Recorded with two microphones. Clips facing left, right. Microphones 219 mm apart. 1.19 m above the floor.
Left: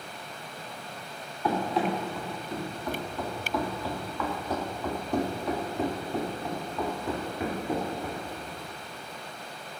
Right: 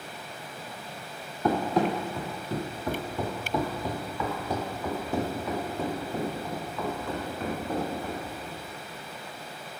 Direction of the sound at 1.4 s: 45° right (ahead or behind).